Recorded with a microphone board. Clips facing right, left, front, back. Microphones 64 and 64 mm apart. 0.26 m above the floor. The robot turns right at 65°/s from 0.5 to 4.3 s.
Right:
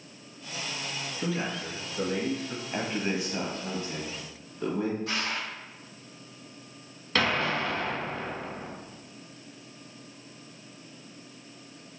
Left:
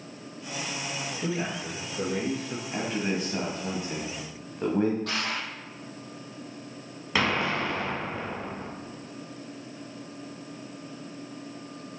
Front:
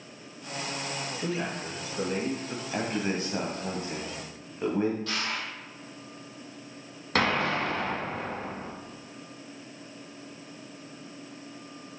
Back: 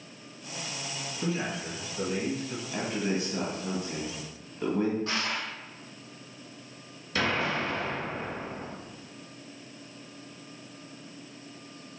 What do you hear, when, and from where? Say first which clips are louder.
1.2 s a man speaking: even, back 2 dB; 120° right, 2.5 m; by 2.6 s 30° right, 2.5 m
2.7 s a man speaking: left 1 dB, front 1 dB; 35° right, 1.2 m; by 5.0 s 65° left, 1.2 m
5.1 s crushing: left 1 dB, back 1 dB; 115° left, 2.5 m
7.2 s an explosion: left 1 dB, front 2 dB; 10° left, 1.4 m